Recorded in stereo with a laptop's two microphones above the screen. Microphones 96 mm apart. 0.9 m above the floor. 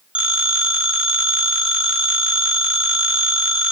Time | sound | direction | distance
0.1 | a phone ringing | 10° right (ahead or behind) | 1.5 m